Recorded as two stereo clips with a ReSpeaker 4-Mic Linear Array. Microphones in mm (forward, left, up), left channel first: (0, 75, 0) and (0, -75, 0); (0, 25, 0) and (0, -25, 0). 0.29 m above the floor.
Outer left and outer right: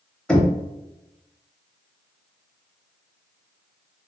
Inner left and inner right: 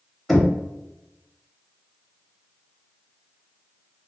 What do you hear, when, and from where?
0.3 s knocking: 5° left (ahead or behind), 0.8 m